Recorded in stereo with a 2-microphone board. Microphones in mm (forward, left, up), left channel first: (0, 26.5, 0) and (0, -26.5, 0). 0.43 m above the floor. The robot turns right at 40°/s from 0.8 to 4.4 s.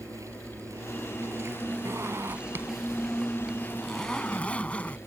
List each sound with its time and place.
0.0 s an insect: 85° right; by 5.1 s 60° left
1.9 s a zipper: 75° right; by 5.0 s 25° left